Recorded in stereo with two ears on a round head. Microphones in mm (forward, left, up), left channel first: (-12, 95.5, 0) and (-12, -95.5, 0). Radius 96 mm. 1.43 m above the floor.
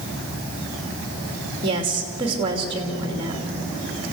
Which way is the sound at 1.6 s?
25° right (ahead or behind).